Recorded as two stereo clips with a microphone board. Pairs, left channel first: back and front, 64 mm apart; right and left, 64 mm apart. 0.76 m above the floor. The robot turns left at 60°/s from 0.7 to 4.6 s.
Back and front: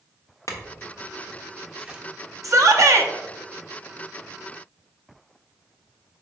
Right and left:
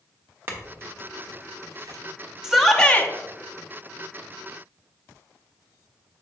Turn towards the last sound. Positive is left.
turn(degrees=-120)